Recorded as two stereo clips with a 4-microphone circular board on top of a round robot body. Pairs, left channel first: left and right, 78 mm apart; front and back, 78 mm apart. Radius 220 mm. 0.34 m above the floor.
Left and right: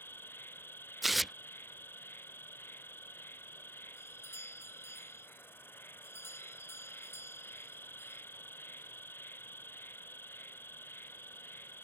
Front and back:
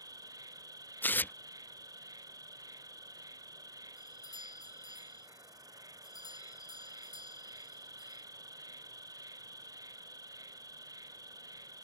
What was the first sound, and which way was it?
An insect, 150° left.